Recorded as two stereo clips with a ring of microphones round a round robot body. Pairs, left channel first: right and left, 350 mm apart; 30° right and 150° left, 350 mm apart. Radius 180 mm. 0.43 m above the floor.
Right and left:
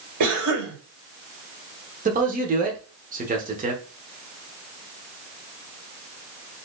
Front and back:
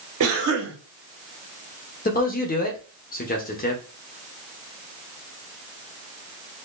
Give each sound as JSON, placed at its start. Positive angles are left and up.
{"t": 0.2, "sound": "a cough", "azimuth_deg": 110, "distance_m": 2.0}
{"t": 2.0, "sound": "a man speaking", "azimuth_deg": 30, "distance_m": 1.0}